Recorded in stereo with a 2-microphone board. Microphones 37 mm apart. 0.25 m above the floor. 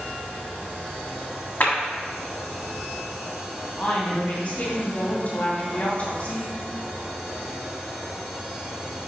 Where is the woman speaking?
40° left (ahead or behind), 1.9 m.